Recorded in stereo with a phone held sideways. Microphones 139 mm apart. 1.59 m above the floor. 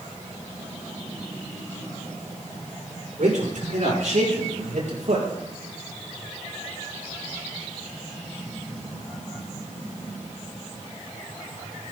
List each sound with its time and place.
3.2 s a man speaking: 75° right (ahead or behind), 6 m; by 5.3 s 70° right (ahead or behind), 4.5 m